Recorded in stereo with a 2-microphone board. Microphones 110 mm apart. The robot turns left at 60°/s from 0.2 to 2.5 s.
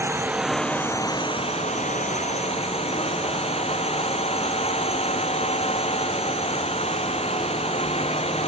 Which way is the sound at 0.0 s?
160° right.